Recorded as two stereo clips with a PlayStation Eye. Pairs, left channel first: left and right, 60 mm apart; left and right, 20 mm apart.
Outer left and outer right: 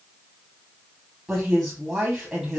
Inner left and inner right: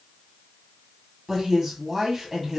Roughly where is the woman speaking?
Centre.